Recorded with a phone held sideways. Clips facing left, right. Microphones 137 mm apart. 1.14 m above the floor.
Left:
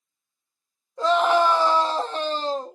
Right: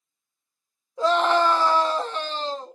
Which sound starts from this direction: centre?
A scream, at 1.0 s.